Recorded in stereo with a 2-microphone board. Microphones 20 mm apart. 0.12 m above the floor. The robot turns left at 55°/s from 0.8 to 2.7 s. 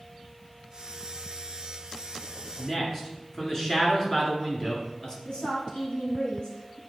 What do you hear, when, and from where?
2.6 s a man speaking: 30° left (ahead or behind), 1.8 m
5.2 s a woman speaking: 55° left (ahead or behind), 2.5 m